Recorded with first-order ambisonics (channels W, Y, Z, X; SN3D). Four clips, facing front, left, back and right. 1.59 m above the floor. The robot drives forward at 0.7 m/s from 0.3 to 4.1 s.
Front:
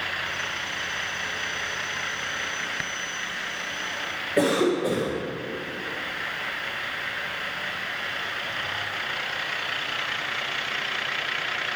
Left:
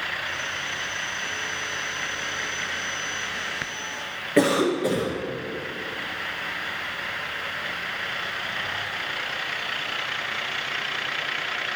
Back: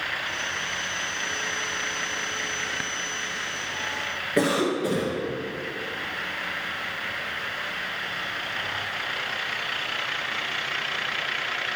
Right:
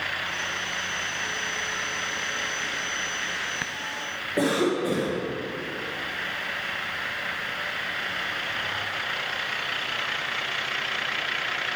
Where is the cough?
115° left, 2.5 m.